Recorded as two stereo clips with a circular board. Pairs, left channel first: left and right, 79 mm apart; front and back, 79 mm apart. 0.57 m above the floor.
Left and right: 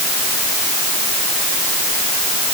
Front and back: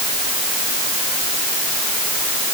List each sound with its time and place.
Only background noise.